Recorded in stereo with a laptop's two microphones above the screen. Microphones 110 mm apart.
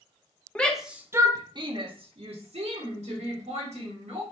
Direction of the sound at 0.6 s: 10° left (ahead or behind).